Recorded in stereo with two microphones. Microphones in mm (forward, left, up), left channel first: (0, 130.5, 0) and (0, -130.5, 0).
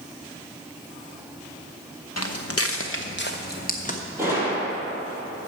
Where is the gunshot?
10° right (ahead or behind), 4 m.